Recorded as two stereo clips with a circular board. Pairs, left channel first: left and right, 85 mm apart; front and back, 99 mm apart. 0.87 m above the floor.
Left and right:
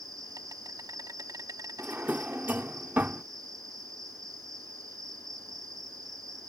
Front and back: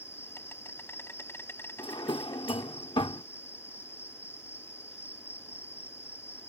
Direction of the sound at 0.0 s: 60° right.